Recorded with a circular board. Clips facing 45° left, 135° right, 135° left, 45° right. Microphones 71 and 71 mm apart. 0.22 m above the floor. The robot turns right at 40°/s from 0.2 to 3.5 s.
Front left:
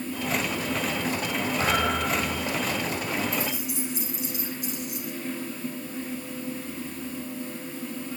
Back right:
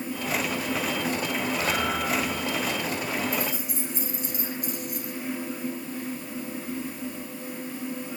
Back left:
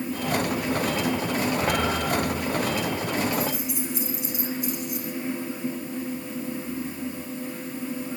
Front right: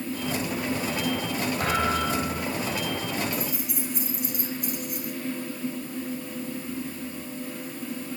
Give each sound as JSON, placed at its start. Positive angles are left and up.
{"t": 1.6, "sound": "a thud", "azimuth_deg": -10, "distance_m": 5.5}
{"t": 3.3, "sound": "keys jangling", "azimuth_deg": -95, "distance_m": 9.5}